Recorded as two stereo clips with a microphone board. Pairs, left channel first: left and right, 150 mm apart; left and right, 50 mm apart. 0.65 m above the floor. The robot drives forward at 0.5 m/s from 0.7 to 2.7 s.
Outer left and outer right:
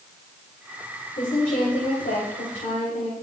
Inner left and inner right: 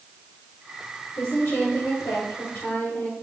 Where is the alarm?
No alarm in this recording.